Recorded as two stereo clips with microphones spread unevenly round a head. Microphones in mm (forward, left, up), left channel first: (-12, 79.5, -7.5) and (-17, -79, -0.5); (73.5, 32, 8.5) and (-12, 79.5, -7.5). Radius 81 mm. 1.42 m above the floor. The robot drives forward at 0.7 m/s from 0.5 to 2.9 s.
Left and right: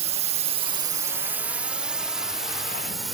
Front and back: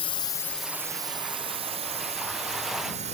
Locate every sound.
0.0 s a drone: 50° right; by 3.1 s straight behind